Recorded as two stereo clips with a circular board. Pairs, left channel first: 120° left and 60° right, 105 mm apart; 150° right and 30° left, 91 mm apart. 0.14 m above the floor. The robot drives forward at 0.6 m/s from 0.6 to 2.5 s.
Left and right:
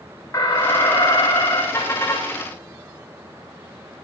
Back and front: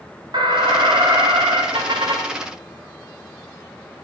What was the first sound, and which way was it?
An alarm, 60° left.